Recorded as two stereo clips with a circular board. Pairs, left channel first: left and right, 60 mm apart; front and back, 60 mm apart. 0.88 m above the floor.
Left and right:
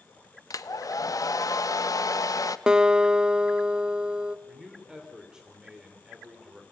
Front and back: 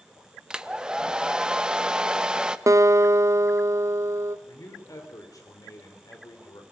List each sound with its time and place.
0.5 s a hair dryer: 105° left, 0.7 m
2.7 s a guitar: 165° right, 0.7 m
4.5 s a man speaking: 10° right, 3.5 m